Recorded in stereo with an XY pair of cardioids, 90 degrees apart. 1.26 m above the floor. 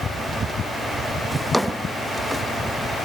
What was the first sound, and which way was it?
A drawer, straight ahead.